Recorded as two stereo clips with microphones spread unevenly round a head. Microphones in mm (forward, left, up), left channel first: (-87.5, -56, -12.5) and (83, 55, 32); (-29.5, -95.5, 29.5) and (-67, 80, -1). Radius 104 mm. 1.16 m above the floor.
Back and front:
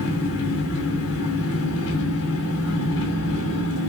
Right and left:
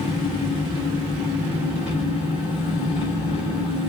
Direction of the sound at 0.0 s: 135° right.